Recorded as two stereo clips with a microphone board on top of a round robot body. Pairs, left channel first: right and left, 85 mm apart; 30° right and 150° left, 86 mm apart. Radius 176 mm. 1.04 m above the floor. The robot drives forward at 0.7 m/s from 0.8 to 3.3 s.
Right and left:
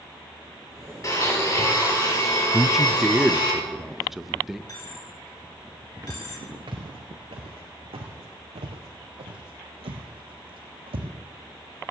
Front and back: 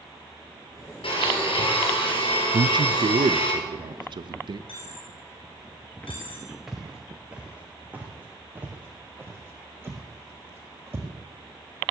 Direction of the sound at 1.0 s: 40° right.